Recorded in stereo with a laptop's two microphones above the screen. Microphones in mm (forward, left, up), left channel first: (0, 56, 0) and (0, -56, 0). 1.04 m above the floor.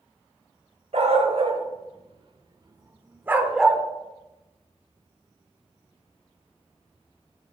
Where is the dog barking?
70° right (ahead or behind), 2 m; by 3.8 s centre (ahead or behind), 1.2 m.